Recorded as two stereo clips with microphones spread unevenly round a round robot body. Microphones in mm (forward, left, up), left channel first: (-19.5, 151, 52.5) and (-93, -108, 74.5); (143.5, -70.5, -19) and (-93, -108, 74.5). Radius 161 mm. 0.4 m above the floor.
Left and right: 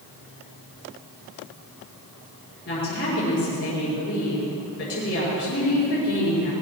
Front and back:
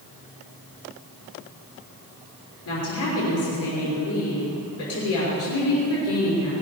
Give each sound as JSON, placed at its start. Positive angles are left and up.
{"t": 2.6, "sound": "a woman speaking", "azimuth_deg": 10, "distance_m": 5.5}